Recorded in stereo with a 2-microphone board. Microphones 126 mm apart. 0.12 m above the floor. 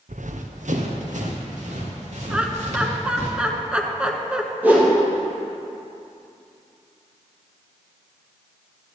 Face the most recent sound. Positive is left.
turn(degrees=-15)  # may be behind; listen again after turning